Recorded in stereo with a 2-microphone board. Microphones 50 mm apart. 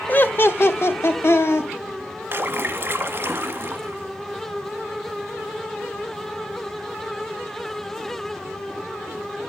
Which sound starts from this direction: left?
Laughter, at 0.1 s.